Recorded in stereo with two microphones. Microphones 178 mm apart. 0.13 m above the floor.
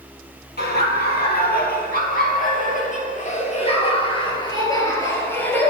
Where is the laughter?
65° left (ahead or behind), 4 m; by 5.7 s 10° left (ahead or behind), 3 m.